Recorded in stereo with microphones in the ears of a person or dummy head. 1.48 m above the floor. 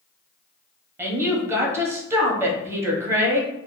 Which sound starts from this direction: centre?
A woman speaking, at 1.0 s.